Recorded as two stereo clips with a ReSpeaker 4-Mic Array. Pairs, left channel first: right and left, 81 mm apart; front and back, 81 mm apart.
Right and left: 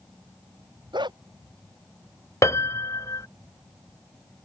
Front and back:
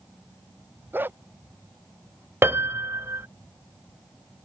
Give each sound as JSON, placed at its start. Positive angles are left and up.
{"t": 0.9, "sound": "a dog barking", "azimuth_deg": 115}
{"t": 2.4, "sound": "a piano", "azimuth_deg": -130}